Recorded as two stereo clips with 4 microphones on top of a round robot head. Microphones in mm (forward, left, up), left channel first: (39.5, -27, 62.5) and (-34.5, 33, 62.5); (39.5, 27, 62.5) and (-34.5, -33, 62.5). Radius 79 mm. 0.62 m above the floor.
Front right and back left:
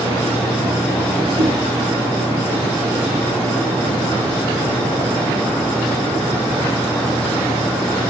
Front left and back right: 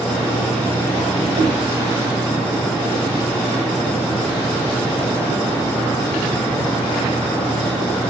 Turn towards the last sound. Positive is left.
turn(degrees=-105)